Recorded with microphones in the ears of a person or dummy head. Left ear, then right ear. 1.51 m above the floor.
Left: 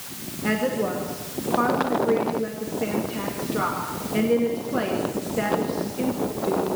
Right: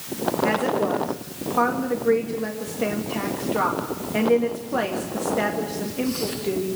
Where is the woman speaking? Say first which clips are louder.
Even; 25° right (ahead or behind), 2 m.